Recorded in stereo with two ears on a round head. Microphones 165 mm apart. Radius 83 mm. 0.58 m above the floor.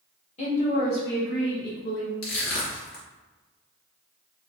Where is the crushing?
80° left, 2.0 m.